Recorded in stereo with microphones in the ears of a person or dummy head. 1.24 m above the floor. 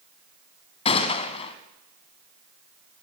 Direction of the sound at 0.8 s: 30° left (ahead or behind).